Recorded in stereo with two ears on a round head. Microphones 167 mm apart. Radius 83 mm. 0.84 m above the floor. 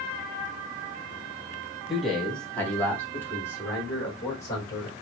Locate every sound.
1.9 s a man speaking: centre (ahead or behind), 1.5 m; by 4.9 s 20° left (ahead or behind), 4 m